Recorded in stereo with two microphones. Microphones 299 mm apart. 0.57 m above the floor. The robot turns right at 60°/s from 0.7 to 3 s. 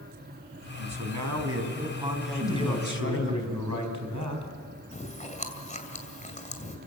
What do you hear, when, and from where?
0.8 s a man speaking: 90° right, 3.5 m; by 3.3 s 45° left, 3.5 m
2.3 s a man speaking: 110° right, 4 m; by 4.5 s 70° right, 4 m
4.9 s chewing: 25° left (ahead or behind), 2.5 m